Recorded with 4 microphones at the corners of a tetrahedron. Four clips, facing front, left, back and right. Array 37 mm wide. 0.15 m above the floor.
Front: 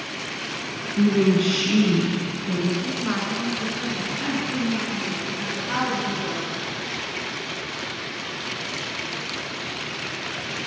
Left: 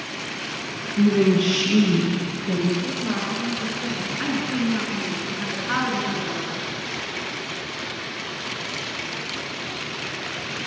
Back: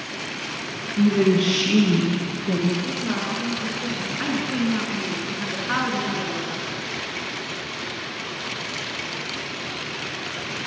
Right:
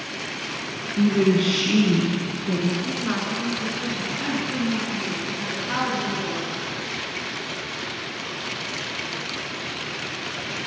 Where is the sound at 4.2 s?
145° left, 1.8 m.